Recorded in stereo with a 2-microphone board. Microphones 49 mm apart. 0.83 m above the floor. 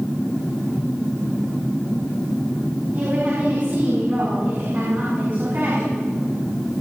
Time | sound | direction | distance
2.9 | a woman speaking | 40° right (ahead or behind) | 6 m